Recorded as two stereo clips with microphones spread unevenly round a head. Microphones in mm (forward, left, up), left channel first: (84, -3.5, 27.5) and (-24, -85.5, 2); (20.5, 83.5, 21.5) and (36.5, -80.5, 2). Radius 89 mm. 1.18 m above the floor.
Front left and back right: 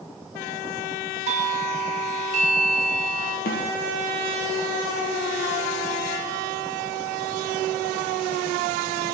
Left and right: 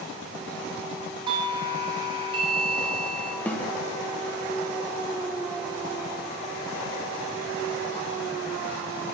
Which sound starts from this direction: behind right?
A doorbell, at 1.3 s.